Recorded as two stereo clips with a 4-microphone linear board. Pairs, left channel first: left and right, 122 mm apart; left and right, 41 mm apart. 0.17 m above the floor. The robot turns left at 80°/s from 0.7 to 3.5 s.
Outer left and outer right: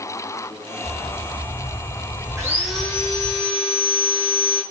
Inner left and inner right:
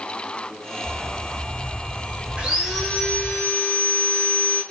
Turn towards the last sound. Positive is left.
turn(degrees=120)